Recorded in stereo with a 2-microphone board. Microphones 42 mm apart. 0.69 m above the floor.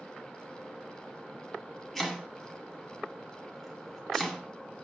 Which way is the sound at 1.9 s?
5° left (ahead or behind).